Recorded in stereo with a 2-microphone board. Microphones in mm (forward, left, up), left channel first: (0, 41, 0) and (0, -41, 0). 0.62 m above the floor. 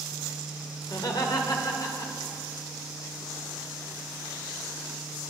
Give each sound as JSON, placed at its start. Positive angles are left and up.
{"t": 0.8, "sound": "laughter", "side_deg": 60, "distance_m": 2.5}